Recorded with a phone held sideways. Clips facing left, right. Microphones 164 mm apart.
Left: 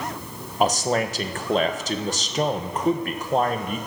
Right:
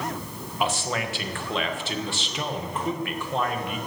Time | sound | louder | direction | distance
0.6 | a man speaking | left 6 dB | 40° left (ahead or behind) | 1.1 m